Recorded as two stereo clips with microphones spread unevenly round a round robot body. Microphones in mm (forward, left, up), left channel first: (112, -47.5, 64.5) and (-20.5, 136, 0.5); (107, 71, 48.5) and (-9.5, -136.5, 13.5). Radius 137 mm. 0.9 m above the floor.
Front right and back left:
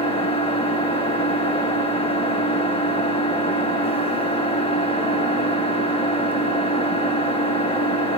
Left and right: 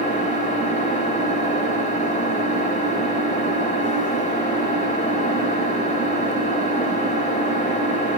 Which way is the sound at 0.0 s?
5° left.